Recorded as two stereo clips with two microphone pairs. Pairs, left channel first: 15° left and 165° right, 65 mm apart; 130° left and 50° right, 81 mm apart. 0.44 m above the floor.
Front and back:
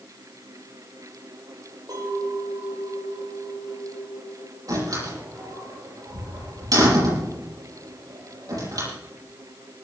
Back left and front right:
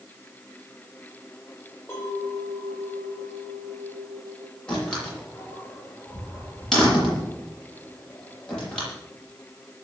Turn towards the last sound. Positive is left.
turn(degrees=-150)